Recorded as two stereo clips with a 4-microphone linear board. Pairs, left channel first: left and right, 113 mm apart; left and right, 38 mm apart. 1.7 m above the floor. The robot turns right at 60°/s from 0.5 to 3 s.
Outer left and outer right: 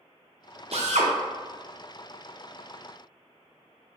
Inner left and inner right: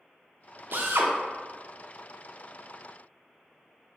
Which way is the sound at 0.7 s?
60° right (ahead or behind).